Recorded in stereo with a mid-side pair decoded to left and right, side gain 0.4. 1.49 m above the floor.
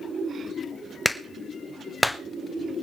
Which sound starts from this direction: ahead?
A clap, at 1.1 s.